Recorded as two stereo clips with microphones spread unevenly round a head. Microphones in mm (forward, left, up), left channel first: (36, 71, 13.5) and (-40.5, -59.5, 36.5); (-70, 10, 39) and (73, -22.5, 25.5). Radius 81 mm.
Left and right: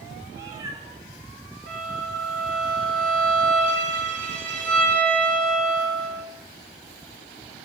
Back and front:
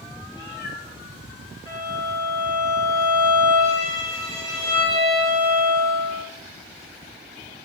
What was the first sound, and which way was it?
A cat meowing, 175° left.